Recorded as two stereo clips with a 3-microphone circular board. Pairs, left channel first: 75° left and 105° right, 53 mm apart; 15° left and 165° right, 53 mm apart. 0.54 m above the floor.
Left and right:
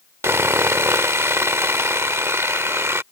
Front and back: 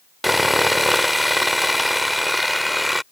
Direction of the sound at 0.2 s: 75° right.